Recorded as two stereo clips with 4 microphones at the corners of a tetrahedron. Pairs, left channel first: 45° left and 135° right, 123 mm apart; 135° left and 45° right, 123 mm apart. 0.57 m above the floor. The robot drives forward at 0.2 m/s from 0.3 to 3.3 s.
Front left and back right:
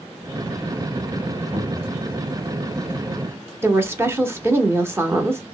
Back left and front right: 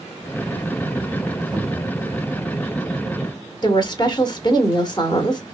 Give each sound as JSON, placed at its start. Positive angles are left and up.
{"t": 1.5, "sound": "a cupboard door", "azimuth_deg": -110, "distance_m": 1.4}
{"t": 3.6, "sound": "a woman speaking", "azimuth_deg": 160, "distance_m": 0.8}